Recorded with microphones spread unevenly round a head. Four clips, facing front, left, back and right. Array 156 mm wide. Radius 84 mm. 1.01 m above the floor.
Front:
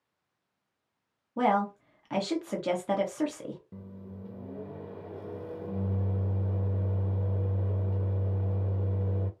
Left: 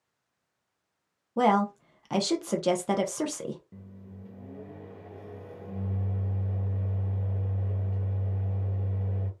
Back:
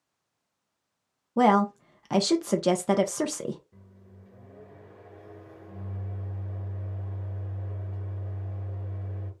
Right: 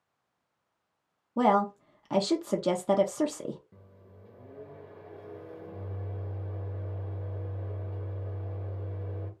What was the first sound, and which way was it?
A woman speaking, 175° right.